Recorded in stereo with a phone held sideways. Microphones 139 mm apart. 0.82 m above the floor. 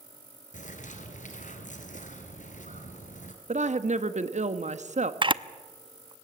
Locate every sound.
0.5 s a bird: 65° left (ahead or behind), 2.5 m
3.5 s a woman speaking: 60° right (ahead or behind), 1.1 m
5.2 s a camera shutter: 35° right (ahead or behind), 0.5 m